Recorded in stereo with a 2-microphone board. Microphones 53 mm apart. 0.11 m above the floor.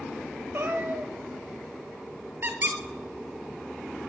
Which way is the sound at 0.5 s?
55° right (ahead or behind).